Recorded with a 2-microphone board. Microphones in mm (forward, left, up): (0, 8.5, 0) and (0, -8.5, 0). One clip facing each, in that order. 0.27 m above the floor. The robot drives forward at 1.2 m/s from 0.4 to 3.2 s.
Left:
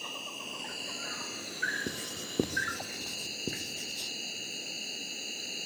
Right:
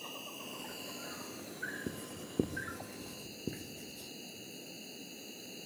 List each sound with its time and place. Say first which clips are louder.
0.0 s an insect: left 6 dB; 35° left (ahead or behind); by 5.7 s 50° left (ahead or behind)
1.9 s writing: left 6 dB; 80° left; by 4.1 s 75° left (ahead or behind)